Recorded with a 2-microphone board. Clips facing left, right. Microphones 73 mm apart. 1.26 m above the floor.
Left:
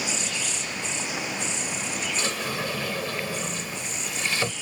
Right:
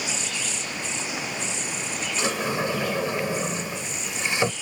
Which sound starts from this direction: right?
A sliding door, at 2.2 s.